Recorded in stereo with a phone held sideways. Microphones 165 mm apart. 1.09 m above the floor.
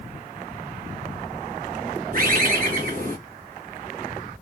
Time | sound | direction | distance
2.1 | a bird | 60° right (ahead or behind) | 1.6 m